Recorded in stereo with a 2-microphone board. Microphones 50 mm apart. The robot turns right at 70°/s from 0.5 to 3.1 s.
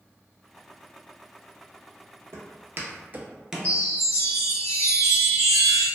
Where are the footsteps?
60° right (ahead or behind), 1.0 m; by 3.7 s 5° left (ahead or behind), 0.6 m.